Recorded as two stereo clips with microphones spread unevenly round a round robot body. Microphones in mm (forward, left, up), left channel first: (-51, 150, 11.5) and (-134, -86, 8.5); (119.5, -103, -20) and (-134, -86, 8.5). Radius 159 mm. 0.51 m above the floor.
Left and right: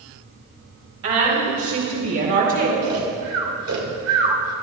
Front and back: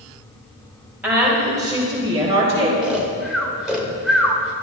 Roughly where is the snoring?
Right.